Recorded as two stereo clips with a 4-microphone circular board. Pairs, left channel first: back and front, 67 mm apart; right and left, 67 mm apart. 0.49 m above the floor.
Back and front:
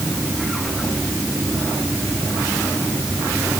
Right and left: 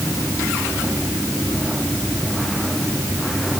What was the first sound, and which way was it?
Only background noise.